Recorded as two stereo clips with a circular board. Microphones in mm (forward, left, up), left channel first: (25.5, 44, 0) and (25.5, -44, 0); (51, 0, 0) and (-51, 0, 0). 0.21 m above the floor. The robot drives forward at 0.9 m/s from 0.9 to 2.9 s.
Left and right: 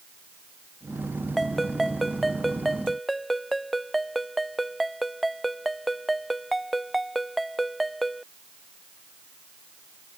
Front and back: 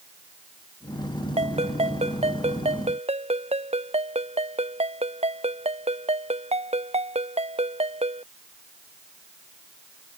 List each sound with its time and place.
1.4 s a ringtone: straight behind